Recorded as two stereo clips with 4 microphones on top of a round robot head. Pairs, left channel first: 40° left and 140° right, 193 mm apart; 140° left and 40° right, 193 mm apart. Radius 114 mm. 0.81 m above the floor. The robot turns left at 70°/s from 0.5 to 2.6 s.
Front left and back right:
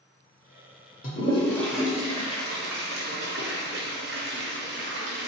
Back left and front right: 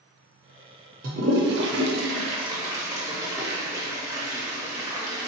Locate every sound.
1.0 s a toilet flushing: straight ahead, 0.6 m; by 5.3 s 110° right, 0.6 m